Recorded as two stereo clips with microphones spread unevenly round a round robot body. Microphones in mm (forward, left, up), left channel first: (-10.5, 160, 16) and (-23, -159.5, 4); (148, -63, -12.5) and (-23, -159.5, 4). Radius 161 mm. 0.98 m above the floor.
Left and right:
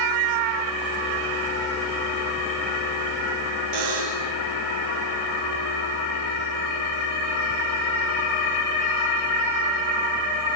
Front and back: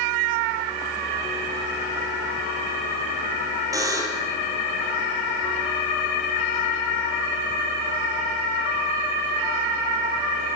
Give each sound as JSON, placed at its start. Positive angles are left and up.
{"t": 3.7, "sound": "a buzzer", "azimuth_deg": -80, "distance_m": 6.5}